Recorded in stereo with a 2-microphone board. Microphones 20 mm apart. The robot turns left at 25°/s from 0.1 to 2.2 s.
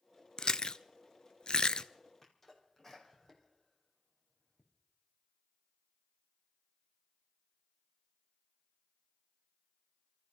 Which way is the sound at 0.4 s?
40° left (ahead or behind).